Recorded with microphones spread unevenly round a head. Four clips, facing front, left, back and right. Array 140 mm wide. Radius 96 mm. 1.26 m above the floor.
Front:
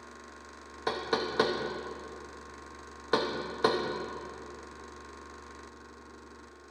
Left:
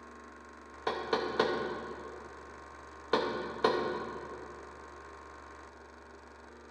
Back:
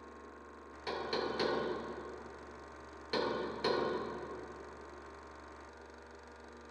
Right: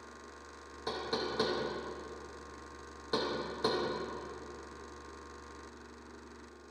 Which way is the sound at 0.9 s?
35° left.